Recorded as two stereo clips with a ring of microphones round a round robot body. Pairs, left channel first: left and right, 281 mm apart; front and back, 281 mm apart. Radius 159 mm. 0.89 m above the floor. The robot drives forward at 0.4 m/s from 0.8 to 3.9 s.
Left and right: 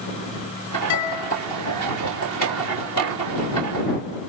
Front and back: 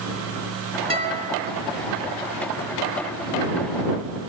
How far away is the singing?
I don't hear singing.